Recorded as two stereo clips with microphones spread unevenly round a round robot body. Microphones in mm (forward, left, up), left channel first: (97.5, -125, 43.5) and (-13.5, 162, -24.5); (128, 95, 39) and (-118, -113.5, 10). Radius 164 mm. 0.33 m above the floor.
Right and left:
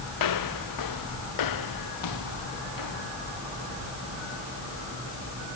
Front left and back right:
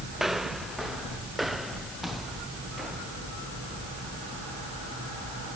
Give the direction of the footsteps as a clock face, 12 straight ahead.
2 o'clock.